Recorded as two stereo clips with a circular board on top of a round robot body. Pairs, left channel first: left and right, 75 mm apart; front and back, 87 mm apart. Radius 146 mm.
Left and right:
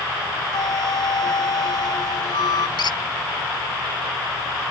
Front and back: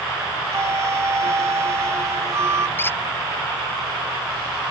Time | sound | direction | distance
0.5 | a flute | 120° left | ?
2.8 | a squeak | 70° left | ?